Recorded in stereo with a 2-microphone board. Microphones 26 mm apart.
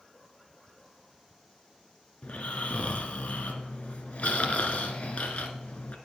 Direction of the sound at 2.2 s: 65° left (ahead or behind).